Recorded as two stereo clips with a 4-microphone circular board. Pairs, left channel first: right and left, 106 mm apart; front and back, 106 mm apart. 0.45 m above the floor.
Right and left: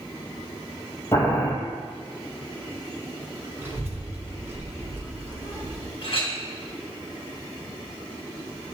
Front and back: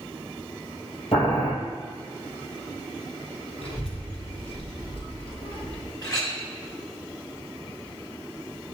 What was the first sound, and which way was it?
Boiling, 25° right.